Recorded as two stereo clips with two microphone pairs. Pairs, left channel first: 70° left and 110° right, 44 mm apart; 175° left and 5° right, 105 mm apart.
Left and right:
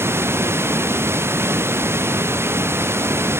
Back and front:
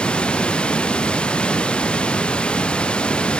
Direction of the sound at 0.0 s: 105° right.